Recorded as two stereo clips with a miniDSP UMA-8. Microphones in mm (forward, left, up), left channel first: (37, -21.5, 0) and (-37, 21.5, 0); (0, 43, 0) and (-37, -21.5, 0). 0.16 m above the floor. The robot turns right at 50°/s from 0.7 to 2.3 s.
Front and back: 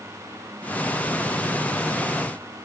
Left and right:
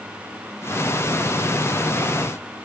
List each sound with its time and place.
Only background noise.